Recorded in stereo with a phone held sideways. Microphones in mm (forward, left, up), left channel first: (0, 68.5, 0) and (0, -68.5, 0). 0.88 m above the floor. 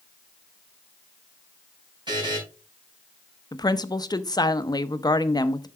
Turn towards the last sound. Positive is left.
turn(degrees=30)  # may be behind; listen again after turning